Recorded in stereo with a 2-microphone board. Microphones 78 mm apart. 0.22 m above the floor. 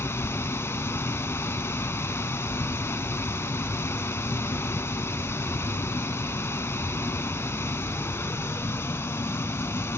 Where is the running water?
30° left (ahead or behind), 0.7 m.